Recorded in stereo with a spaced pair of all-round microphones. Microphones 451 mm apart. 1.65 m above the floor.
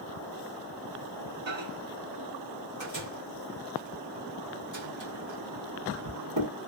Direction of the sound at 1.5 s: 75° right (ahead or behind).